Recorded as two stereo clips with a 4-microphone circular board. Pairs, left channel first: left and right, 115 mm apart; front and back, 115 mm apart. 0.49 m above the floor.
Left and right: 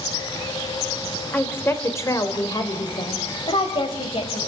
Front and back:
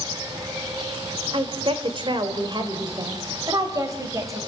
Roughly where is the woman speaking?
Behind.